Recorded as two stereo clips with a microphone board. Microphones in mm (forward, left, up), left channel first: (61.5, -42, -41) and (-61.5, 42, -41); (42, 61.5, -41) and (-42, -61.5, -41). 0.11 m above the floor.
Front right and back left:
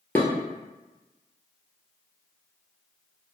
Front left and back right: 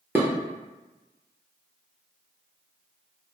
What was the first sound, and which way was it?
Dishes clattering, 85° right.